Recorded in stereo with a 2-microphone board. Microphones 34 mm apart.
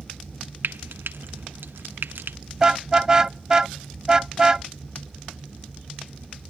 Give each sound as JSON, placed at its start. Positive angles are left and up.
{"t": 0.6, "sound": "frying", "side_deg": -85}
{"t": 2.6, "sound": "a car horn", "side_deg": -20}